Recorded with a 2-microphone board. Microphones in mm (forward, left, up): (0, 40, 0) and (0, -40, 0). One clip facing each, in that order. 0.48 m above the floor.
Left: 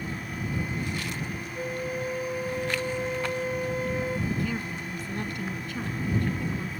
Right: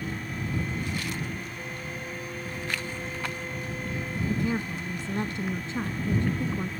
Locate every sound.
1.6 s a flute: 75° left (ahead or behind)
4.3 s a woman speaking: 25° right (ahead or behind)